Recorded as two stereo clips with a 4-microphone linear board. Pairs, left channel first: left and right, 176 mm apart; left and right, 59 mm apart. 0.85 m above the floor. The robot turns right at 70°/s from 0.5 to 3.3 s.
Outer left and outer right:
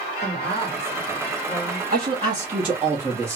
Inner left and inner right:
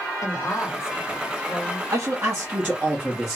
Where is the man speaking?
90° right, 1.2 m; by 3.4 s 10° left, 1.2 m.